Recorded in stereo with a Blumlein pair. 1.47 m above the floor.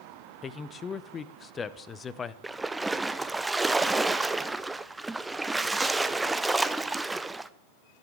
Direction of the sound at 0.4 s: 20° left.